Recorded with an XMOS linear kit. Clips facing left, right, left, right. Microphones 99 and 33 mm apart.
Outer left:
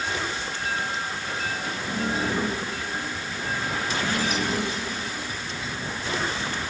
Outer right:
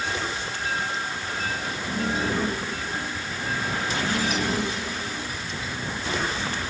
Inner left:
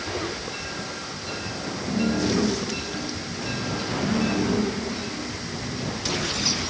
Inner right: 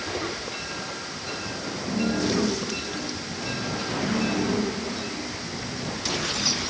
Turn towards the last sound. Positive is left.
No sound to turn to.